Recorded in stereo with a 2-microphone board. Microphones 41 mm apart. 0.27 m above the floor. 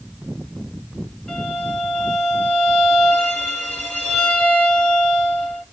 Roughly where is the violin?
Left.